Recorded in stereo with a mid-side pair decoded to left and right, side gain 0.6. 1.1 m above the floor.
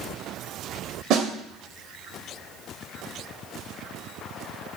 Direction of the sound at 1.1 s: 60° right.